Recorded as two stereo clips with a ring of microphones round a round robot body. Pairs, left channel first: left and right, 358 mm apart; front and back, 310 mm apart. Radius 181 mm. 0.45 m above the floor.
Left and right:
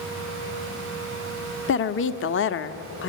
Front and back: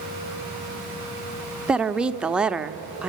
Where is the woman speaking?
95° left, 0.8 m.